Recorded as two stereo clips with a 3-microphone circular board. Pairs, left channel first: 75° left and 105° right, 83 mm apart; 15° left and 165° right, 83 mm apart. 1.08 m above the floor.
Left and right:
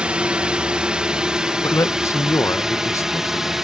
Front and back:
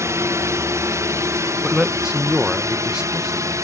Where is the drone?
175° right; by 3.6 s 175° left.